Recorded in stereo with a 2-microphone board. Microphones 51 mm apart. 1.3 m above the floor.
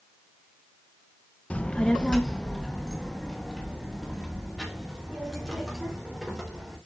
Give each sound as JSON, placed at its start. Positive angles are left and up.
{"t": 1.5, "sound": "a child speaking", "side_deg": 30, "distance_m": 0.8}